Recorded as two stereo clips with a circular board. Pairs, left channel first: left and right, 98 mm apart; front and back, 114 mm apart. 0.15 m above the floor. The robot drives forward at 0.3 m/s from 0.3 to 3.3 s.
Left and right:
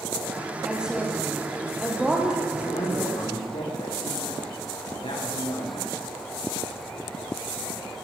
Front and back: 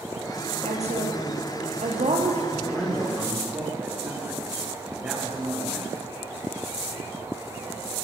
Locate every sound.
0.6 s a woman speaking: 170° right, 4.5 m
2.5 s a man speaking: 115° left, 7 m